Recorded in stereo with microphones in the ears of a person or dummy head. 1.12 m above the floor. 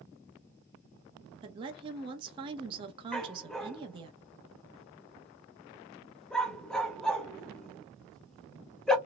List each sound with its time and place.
1.4 s a woman speaking: 30° right (ahead or behind), 0.8 m
3.1 s a dog barking: 5° left (ahead or behind), 0.6 m